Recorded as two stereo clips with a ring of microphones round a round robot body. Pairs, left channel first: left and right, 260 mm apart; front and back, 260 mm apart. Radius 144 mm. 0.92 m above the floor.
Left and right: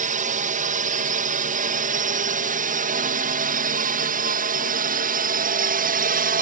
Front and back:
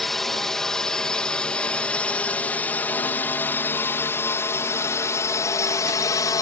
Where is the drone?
90° right; by 6.4 s 70° right.